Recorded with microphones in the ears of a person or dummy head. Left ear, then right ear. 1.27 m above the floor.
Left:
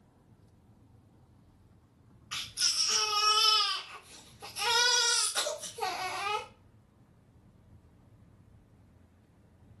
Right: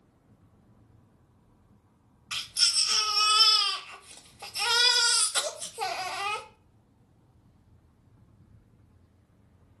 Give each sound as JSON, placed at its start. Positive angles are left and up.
{"t": 2.3, "sound": "a baby crying", "side_deg": -45, "distance_m": 0.7}